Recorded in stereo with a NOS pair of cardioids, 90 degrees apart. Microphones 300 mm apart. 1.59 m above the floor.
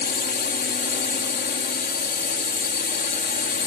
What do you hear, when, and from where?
0.0 s a drone: 30° left